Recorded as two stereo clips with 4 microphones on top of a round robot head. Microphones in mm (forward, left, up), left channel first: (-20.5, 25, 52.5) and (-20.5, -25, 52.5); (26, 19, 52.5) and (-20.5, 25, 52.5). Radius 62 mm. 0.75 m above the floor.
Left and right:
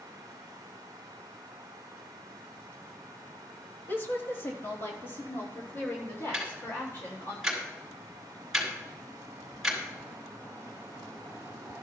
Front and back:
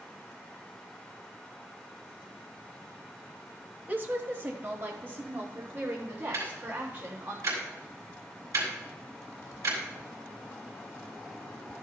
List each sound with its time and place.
3.9 s a woman speaking: 130° left, 1.1 m
6.3 s ticking: 175° right, 4 m